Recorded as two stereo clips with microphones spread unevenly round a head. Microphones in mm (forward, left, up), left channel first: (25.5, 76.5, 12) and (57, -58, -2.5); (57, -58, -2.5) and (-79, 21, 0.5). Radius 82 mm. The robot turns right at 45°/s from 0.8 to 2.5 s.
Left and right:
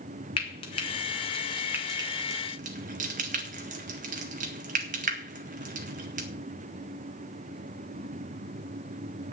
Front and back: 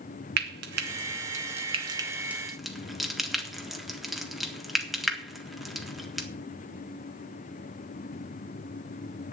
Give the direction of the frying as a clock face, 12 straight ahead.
7 o'clock.